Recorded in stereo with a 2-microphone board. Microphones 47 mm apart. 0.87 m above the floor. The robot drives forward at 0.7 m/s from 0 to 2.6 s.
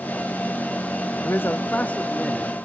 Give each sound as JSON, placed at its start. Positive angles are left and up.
{"t": 1.2, "sound": "a man speaking", "side_deg": 55, "distance_m": 0.5}